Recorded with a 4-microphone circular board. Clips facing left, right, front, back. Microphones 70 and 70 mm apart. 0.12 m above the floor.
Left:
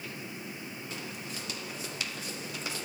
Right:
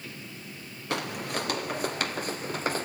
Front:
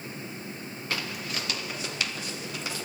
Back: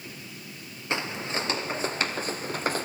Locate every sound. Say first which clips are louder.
0.9 s footsteps: right 14 dB, back 4 dB; 115° right, 1.8 m; by 2.9 s 135° right, 2.5 m